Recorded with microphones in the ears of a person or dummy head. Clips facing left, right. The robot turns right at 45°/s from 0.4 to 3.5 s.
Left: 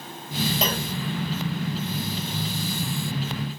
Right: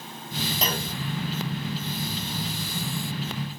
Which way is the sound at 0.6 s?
55° left (ahead or behind).